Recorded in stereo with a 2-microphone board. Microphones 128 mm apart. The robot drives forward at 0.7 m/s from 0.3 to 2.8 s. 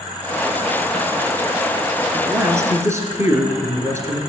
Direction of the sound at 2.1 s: 25° right (ahead or behind).